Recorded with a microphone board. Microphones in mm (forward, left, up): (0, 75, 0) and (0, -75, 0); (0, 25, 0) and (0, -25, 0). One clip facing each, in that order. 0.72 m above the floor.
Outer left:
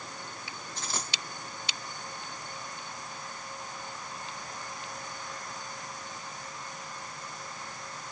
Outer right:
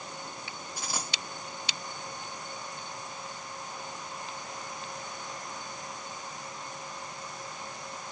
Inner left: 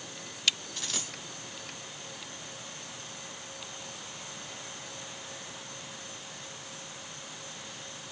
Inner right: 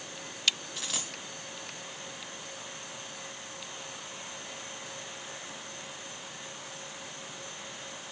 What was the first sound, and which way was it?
A dropped coin, 10° right (ahead or behind).